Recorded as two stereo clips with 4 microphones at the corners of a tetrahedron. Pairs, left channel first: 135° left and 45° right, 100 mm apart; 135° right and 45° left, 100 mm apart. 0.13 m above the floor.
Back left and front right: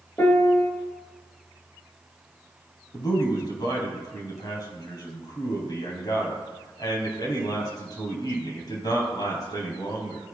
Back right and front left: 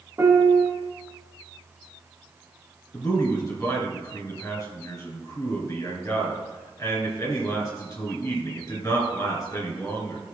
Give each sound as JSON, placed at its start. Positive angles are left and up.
{"t": 0.2, "sound": "a piano", "azimuth_deg": 90, "distance_m": 1.0}
{"t": 2.9, "sound": "a man speaking", "azimuth_deg": 175, "distance_m": 3.0}